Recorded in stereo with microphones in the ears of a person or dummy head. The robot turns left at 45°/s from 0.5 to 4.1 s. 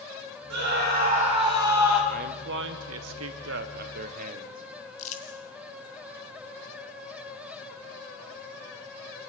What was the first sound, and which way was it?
A scream, 115° right.